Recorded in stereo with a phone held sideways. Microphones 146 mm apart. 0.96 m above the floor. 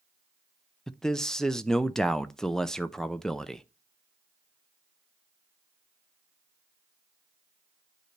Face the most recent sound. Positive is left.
turn(degrees=5)  # may be behind; listen again after turning